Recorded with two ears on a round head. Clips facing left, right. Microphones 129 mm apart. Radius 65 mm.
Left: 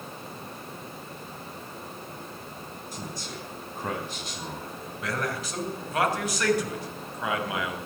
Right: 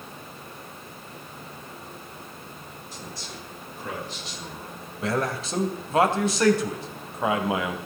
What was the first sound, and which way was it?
A man speaking, 45° left (ahead or behind).